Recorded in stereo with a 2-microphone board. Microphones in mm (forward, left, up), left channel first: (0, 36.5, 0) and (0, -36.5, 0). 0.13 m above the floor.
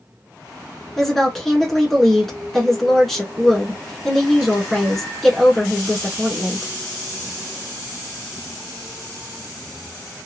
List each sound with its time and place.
1.0 s a woman speaking: 5° left (ahead or behind), 1.5 m